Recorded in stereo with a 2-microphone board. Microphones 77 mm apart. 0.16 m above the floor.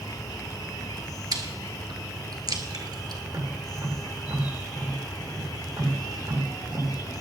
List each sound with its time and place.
0.0 s an insect: 65° left (ahead or behind), 0.9 m
1.3 s chewing: 65° right (ahead or behind), 1.5 m
3.2 s tapping: 55° right (ahead or behind), 8 m